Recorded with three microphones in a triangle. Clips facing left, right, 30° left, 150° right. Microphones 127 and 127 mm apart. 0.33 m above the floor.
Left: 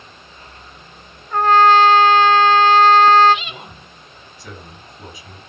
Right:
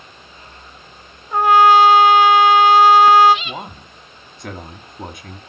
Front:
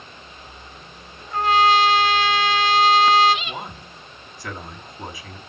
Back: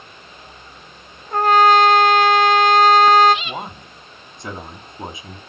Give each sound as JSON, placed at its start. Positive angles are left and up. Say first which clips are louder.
{"t": 1.3, "sound": "a trumpet", "louder": "right 1 dB, back 4 dB", "azimuth_deg": -165, "distance_m": 1.0}
{"t": 3.5, "sound": "a man speaking", "louder": "right 6 dB, back 3 dB", "azimuth_deg": -85, "distance_m": 3.0}